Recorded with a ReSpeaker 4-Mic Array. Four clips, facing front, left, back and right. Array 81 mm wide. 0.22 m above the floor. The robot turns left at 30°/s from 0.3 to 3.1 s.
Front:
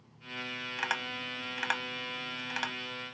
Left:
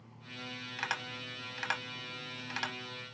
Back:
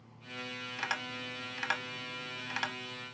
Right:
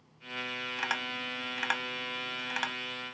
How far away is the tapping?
About 0.9 m.